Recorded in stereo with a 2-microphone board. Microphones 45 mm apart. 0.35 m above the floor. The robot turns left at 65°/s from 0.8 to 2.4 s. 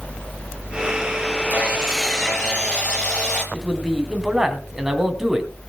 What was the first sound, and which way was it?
Sawing, 145° right.